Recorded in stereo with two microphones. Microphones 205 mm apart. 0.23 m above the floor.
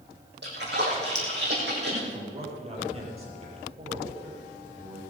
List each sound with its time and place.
0.4 s a splash: 55° right (ahead or behind), 5.5 m
2.1 s a man speaking: 30° right (ahead or behind), 6.5 m